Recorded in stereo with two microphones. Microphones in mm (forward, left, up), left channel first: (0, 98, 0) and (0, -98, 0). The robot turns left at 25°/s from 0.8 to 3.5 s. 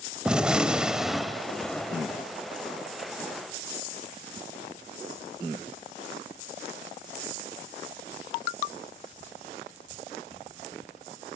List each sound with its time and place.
0.2 s a gunshot: 5° right (ahead or behind), 0.7 m; by 2.2 s 10° left (ahead or behind), 0.7 m